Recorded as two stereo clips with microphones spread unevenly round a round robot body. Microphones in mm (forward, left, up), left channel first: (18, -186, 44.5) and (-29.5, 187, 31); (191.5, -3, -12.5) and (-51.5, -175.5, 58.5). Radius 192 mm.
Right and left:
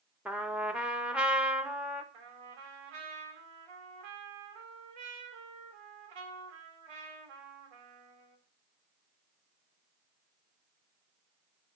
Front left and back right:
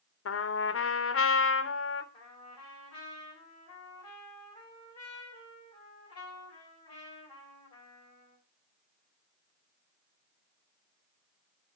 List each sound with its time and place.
0.2 s a trumpet: 10° left, 1.2 m
2.1 s a trumpet: 110° left, 4 m